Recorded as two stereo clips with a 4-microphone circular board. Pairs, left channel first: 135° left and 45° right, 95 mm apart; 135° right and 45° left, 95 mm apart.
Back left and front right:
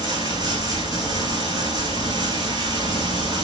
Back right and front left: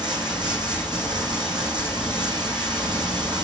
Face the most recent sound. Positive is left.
turn(degrees=5)